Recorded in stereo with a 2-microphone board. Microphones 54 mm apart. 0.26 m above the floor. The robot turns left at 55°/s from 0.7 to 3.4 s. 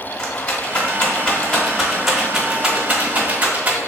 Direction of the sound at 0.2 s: 25° left (ahead or behind).